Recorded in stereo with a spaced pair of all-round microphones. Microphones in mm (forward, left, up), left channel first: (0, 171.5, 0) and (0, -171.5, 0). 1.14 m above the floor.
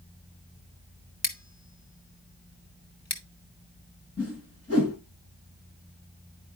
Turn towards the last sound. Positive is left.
turn(degrees=45)  # may be behind; listen again after turning